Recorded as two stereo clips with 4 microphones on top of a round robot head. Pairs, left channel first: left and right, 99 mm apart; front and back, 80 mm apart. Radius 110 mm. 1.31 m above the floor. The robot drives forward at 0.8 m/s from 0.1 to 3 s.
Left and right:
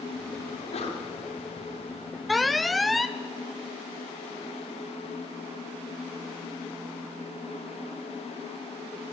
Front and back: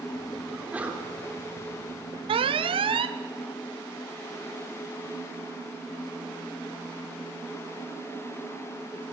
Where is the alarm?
Straight behind, 0.5 m.